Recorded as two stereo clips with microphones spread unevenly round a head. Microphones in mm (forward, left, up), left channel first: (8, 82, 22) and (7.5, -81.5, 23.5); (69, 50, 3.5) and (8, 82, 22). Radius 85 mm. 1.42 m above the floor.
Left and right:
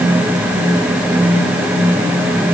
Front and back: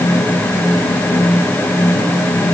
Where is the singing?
No singing in this recording.